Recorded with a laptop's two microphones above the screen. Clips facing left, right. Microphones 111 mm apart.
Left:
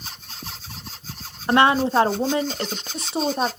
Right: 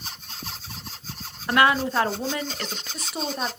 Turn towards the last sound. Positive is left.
turn(degrees=30)  # may be behind; listen again after turning